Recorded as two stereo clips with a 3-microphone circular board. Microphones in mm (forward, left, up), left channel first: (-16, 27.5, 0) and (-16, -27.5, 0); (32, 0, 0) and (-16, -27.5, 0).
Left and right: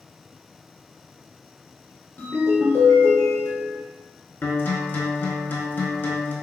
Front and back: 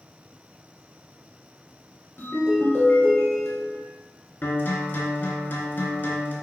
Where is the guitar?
60° left, 0.5 m.